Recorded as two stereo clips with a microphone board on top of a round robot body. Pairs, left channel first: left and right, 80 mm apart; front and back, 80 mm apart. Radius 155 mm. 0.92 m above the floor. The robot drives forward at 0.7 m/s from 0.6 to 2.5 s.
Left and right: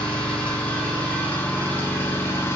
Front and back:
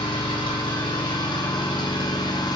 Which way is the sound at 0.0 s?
15° left.